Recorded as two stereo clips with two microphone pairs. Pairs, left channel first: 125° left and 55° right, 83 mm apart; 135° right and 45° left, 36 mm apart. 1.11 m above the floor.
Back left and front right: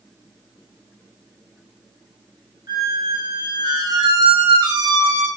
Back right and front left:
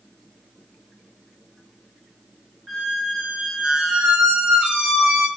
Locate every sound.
2.7 s a squeak: 35° right, 1.0 m